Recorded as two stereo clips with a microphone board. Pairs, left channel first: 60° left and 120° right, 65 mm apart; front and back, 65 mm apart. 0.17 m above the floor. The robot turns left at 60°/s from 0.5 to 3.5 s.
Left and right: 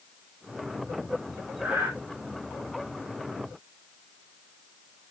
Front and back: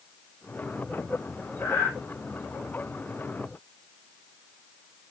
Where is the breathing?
40° right, 3.5 m; by 1.9 s 60° right, 3.5 m.